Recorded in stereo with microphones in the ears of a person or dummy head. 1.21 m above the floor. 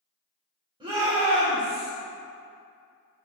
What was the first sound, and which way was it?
A shout, 15° right (ahead or behind).